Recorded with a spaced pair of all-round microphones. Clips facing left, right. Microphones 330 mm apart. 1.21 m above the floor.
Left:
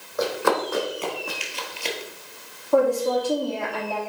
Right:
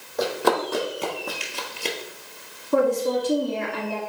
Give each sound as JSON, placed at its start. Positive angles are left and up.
{"t": 0.2, "sound": "running footsteps", "side_deg": -40, "distance_m": 3.0}
{"t": 2.7, "sound": "a woman speaking", "side_deg": -25, "distance_m": 3.0}